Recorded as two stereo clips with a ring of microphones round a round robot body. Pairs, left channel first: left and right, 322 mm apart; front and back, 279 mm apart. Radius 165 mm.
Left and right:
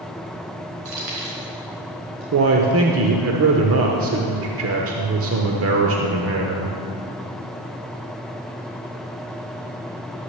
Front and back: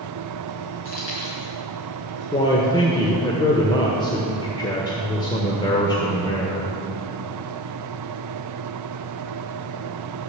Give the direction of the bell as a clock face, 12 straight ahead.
I don't hear a bell.